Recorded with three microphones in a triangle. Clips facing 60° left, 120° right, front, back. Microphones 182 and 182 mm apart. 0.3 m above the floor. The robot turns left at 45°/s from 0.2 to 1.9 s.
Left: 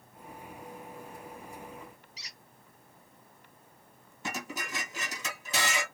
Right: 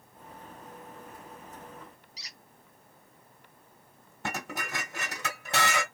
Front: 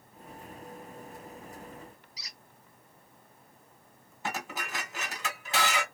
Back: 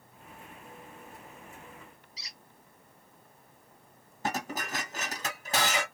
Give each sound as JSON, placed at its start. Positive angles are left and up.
{"t": 2.2, "sound": "a squeak", "azimuth_deg": -135, "distance_m": 1.1}
{"t": 4.2, "sound": "dishes clattering", "azimuth_deg": -135, "distance_m": 1.6}